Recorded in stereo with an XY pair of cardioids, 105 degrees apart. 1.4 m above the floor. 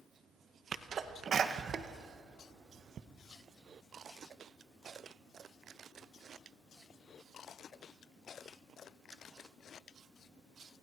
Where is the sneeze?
50° right, 1.3 m.